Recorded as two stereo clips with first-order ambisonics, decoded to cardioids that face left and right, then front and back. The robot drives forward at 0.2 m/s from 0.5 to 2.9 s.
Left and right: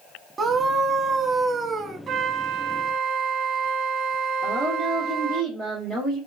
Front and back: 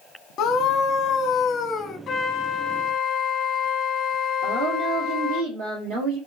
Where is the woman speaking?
170° left, 1.8 m.